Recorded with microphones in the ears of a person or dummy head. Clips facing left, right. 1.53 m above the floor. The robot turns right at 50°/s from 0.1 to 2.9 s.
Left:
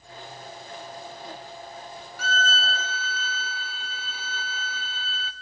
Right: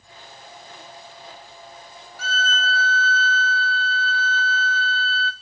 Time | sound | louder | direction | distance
2.2 | a violin | right 1 dB | 125° left | 0.7 m